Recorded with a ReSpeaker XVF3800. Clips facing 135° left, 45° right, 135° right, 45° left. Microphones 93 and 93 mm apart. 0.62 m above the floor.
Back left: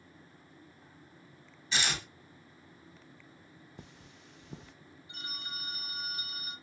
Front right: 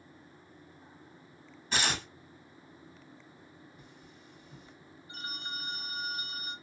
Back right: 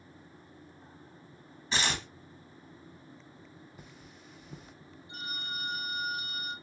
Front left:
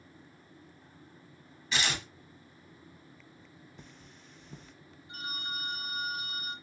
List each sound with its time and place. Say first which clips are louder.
1.7 s tearing paper: front right 2 dB, back right 1 dB; 80° right, 1.5 m
3.8 s cutlery clinking: back left 1 dB, back right 2 dB; 140° left, 0.8 m
5.1 s a phone ringing: front right 4 dB, even; straight ahead, 1.6 m